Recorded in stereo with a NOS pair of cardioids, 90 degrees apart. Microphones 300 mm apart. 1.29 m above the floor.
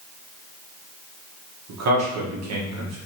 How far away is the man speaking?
About 1.3 m.